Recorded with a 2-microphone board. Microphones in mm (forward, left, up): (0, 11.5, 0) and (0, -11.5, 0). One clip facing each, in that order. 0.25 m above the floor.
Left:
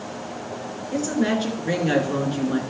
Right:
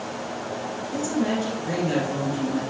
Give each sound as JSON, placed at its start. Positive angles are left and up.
{"t": 0.9, "sound": "a woman speaking", "side_deg": 40, "distance_m": 3.0}